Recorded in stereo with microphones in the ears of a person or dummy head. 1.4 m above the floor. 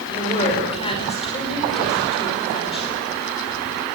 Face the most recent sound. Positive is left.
turn(degrees=30)  # may be behind; listen again after turning